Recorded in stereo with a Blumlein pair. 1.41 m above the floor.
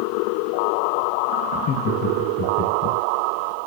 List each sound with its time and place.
1.5 s laughter: 35° left, 1.2 m